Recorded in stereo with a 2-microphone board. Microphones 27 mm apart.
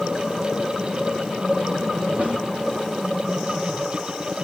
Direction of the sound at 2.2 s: 75° right (ahead or behind).